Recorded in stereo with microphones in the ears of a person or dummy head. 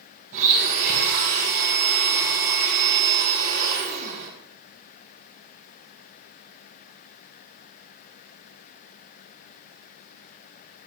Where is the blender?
45° right (ahead or behind), 4.5 m.